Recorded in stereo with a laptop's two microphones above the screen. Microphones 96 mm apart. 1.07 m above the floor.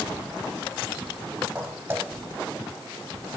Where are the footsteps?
20° right (ahead or behind), 3.5 m.